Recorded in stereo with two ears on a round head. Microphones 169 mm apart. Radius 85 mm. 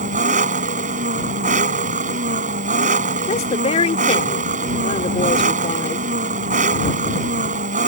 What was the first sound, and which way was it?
An engine running, 45° right (ahead or behind).